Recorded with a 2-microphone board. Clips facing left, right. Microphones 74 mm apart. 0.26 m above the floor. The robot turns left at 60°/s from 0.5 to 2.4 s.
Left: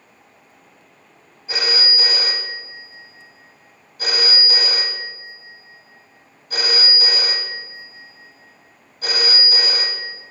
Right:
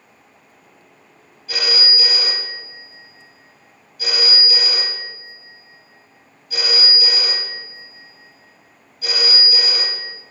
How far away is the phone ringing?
About 0.8 m.